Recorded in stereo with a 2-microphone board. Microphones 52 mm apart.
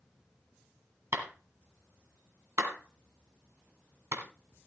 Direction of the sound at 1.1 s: 60° right (ahead or behind).